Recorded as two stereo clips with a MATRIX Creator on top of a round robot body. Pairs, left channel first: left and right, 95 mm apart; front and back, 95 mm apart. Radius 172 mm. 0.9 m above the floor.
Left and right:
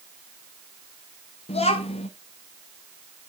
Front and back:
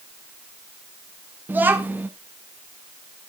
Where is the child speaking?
105° left, 0.6 m.